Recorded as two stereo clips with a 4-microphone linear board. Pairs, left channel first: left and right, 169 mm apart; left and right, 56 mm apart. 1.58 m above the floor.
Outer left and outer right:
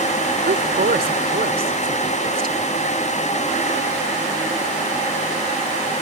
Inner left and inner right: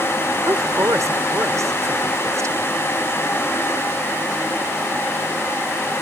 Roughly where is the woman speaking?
Right.